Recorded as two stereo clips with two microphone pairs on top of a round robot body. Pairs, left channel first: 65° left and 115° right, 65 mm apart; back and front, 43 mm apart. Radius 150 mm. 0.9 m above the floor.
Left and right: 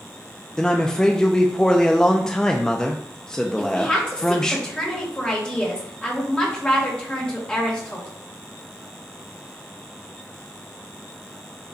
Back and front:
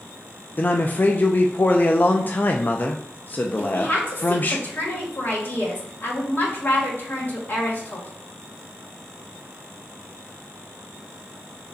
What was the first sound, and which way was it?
A man speaking, 145° left.